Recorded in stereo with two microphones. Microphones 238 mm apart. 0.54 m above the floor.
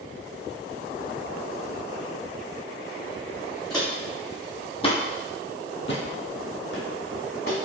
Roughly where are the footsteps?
Centre.